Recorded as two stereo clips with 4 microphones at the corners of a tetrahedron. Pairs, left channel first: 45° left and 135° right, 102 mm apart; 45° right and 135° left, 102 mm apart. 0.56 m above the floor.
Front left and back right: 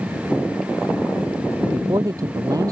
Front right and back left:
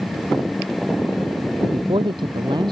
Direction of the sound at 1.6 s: 170° left.